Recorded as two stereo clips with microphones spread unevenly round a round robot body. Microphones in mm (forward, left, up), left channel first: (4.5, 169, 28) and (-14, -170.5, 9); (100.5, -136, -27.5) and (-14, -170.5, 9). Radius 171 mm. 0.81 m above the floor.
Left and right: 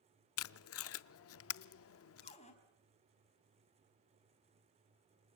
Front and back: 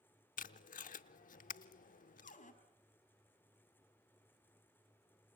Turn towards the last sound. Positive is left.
turn(degrees=15)